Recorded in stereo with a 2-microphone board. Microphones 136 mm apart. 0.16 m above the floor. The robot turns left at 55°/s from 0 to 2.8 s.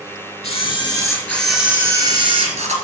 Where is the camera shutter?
55° left, 1.9 m; by 2.7 s 70° right, 1.9 m.